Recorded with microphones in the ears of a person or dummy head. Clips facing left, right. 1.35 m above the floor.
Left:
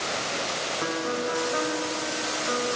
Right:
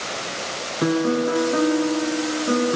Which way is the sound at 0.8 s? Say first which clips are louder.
Right 11 dB; 45° right (ahead or behind).